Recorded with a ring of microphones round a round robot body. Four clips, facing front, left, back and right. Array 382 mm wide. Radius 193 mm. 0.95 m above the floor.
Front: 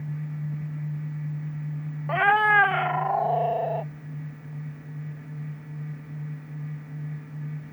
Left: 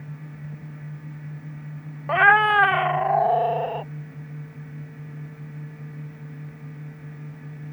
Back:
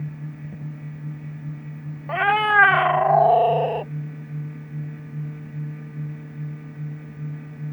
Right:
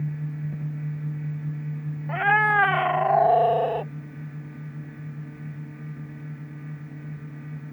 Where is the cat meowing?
90° left; by 3.9 s 140° right.